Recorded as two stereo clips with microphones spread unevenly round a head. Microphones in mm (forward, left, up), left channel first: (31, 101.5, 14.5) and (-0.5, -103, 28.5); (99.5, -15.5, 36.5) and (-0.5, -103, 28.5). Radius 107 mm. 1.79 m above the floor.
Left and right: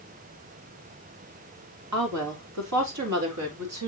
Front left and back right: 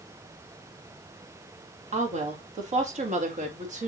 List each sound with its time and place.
1.9 s a woman speaking: 105° right, 4 m; by 3.9 s 115° right, 4.5 m